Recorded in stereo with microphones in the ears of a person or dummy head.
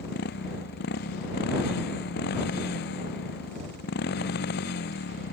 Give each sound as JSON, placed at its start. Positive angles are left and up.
{"t": 0.0, "sound": "a motorcycle", "side_deg": 60}